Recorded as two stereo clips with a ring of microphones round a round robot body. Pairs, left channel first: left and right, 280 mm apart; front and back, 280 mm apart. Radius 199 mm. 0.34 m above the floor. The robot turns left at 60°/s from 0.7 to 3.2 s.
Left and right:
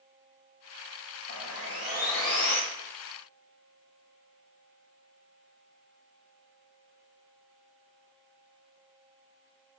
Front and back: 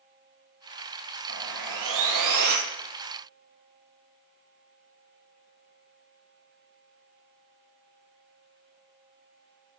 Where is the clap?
I don't hear a clap.